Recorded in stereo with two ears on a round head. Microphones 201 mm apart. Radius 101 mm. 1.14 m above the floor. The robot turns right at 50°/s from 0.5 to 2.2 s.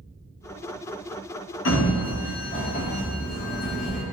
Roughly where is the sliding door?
Left.